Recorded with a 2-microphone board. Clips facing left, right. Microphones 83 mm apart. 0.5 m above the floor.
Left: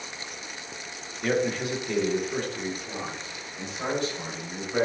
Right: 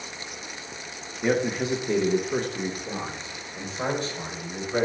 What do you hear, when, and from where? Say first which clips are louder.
1.2 s a man speaking: right 2 dB; 15° right (ahead or behind), 0.9 m; by 4.9 s 35° right (ahead or behind), 2.5 m